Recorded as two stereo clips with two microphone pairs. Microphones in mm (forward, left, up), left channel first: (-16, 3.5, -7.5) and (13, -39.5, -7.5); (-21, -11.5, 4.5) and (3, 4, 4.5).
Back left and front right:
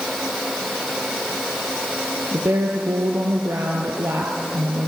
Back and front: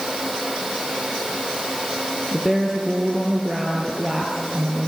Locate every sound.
2.3 s a woman speaking: 50° right, 2 m